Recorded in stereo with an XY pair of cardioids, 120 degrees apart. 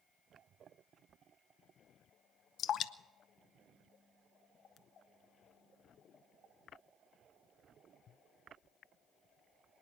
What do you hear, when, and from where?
2.6 s dripping: 55° left, 0.6 m